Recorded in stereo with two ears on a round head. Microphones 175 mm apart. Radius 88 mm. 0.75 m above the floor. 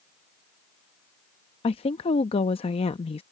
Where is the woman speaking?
30° left (ahead or behind).